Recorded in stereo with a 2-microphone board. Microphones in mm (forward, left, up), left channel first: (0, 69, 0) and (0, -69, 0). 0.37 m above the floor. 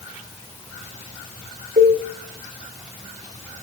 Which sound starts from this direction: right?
A cowbell, at 1.8 s.